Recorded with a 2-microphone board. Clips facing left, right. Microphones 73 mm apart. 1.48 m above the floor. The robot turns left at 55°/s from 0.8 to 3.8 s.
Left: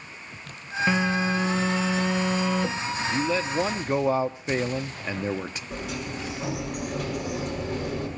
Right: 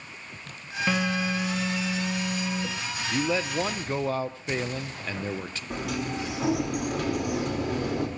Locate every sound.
0.9 s a phone buzzing: 165° left, 0.9 m; by 4.1 s 5° left, 0.9 m
3.1 s a man speaking: 160° right, 0.7 m; by 5.6 s 160° left, 0.7 m
5.7 s a sliding door: 85° right, 4.5 m